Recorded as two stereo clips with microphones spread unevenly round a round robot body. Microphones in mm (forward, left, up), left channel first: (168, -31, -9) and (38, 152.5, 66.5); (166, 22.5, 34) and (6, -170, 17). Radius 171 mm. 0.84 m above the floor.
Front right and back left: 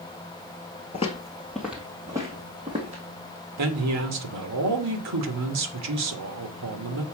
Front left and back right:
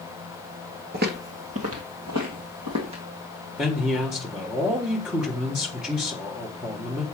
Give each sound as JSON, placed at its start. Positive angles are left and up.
{"t": 0.9, "sound": "footsteps", "azimuth_deg": -135, "distance_m": 0.9}
{"t": 3.6, "sound": "a man speaking", "azimuth_deg": 145, "distance_m": 1.5}